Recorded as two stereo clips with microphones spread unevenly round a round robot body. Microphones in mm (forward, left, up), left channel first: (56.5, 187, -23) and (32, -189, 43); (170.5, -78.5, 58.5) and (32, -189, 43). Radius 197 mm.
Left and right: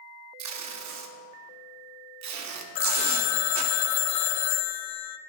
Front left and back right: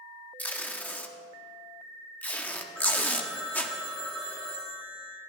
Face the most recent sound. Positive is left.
turn(degrees=125)